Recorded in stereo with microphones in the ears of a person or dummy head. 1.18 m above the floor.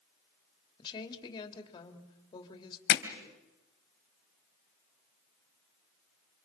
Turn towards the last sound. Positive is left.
turn(degrees=70)  # may be behind; listen again after turning